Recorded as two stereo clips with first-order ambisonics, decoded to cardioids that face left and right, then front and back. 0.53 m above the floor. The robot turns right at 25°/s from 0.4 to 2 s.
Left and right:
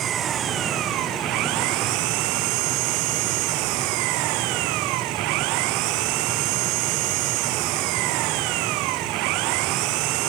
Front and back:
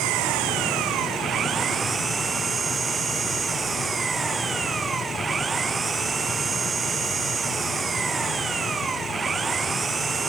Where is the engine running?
145° right; by 10.3 s 105° right.